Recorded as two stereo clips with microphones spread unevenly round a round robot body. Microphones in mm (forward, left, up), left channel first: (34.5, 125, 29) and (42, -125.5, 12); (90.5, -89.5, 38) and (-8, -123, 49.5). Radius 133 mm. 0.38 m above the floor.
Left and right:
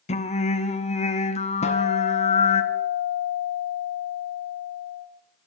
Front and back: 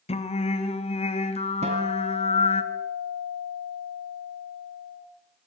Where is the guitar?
160° left, 2.5 m.